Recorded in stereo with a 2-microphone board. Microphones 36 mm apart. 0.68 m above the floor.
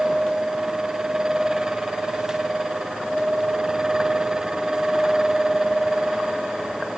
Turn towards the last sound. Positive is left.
No sound to turn to.